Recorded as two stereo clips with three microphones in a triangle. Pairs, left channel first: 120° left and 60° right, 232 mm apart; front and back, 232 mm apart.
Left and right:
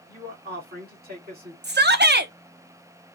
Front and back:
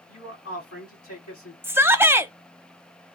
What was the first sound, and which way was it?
A man speaking, 10° right.